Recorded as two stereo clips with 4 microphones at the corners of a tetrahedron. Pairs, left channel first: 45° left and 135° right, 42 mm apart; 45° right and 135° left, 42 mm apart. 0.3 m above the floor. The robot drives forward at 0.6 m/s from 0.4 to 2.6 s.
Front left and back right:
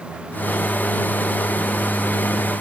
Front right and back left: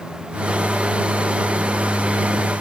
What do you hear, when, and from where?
Only background noise.